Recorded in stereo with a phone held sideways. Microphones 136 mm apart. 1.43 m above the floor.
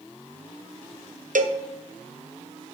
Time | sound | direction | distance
1.4 | a cowbell | 90° right | 0.9 m